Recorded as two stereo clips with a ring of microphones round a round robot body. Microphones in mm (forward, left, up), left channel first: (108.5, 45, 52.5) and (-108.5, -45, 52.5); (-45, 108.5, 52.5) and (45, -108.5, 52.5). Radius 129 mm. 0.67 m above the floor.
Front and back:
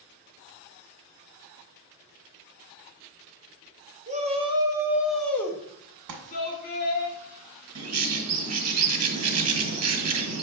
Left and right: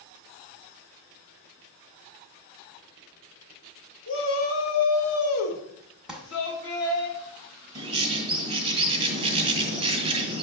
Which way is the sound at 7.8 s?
140° right.